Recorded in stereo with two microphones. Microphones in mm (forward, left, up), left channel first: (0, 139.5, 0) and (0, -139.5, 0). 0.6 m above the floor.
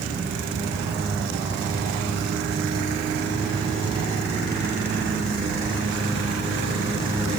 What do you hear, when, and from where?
Only background noise.